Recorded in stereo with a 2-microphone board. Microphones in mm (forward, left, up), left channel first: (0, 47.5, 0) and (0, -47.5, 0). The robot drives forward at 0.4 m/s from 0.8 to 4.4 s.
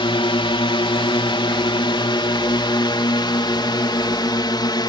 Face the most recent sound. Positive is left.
turn(degrees=50)  # may be behind; listen again after turning